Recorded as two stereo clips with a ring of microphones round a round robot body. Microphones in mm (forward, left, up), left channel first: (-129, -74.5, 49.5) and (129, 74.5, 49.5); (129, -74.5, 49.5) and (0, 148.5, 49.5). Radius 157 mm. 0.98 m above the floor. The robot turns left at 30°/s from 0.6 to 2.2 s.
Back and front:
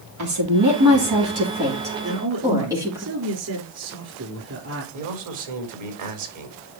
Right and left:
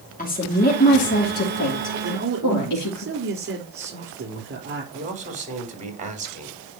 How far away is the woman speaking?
About 3 m.